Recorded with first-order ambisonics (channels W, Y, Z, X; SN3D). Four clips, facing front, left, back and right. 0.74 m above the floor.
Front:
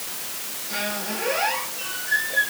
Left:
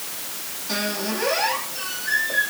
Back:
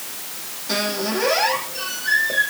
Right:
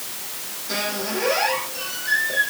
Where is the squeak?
175° right, 7.5 m.